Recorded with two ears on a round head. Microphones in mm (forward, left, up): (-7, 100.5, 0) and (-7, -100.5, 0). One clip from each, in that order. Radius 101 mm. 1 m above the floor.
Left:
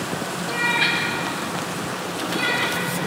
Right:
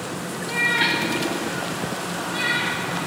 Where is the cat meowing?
15° right (ahead or behind), 1.9 m; by 2.8 s 30° right (ahead or behind), 4.5 m.